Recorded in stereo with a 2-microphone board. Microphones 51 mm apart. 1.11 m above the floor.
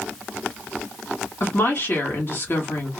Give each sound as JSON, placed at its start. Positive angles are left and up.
{"t": 1.4, "sound": "a woman speaking", "side_deg": 45, "distance_m": 1.9}